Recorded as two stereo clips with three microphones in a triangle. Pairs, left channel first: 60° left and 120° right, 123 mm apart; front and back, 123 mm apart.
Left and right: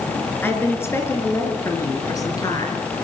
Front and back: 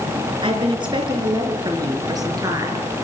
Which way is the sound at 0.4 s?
135° left.